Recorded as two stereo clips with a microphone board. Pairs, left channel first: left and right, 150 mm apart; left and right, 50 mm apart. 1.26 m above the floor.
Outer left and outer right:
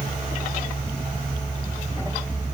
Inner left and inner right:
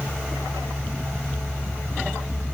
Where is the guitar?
No guitar in this recording.